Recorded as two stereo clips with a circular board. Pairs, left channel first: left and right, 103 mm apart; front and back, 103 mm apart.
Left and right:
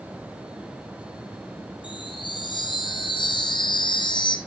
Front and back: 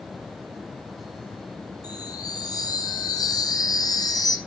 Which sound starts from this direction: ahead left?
A chime, at 1.8 s.